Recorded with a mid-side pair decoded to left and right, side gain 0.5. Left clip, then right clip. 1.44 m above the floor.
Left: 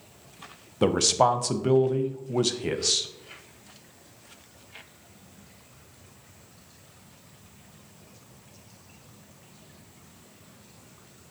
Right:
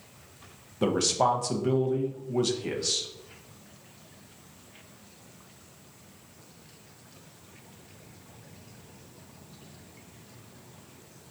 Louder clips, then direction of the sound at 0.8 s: Left 3 dB; 35° left.